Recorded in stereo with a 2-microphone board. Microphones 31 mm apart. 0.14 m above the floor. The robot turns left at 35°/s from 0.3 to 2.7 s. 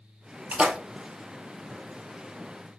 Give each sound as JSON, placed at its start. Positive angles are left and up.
{"t": 0.5, "sound": "a splash", "side_deg": -40, "distance_m": 0.9}